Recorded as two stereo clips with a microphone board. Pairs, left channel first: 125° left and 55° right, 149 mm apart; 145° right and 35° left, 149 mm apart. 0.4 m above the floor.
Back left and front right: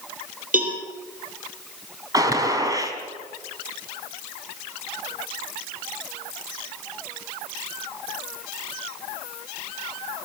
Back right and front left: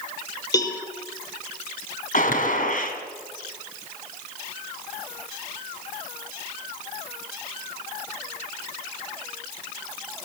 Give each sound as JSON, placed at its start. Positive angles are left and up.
{"t": 0.5, "sound": "a cowbell", "azimuth_deg": -80, "distance_m": 5.0}
{"t": 2.1, "sound": "a gunshot", "azimuth_deg": -120, "distance_m": 3.5}